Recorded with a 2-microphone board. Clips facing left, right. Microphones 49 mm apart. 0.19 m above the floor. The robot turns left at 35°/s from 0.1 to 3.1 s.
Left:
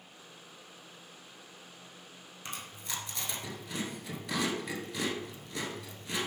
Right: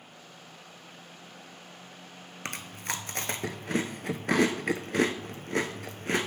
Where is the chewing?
75° right (ahead or behind), 0.7 m; by 6.3 s 60° right (ahead or behind), 0.7 m.